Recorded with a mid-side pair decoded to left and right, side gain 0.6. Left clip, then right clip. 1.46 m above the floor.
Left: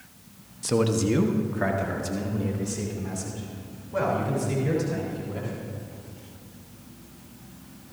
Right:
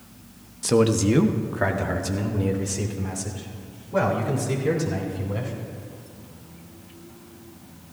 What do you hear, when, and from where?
0.6 s a man speaking: 20° right, 0.8 m